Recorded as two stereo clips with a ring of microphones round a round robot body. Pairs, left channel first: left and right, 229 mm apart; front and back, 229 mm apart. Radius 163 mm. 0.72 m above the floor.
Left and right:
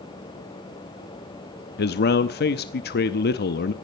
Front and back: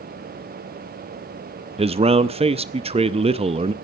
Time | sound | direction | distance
1.8 | a man speaking | 120° left | 0.7 m